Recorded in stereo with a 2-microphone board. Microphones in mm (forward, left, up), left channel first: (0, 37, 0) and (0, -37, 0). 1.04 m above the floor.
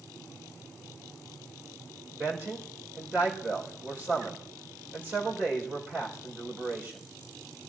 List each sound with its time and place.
2.1 s a man speaking: 30° right (ahead or behind), 4 m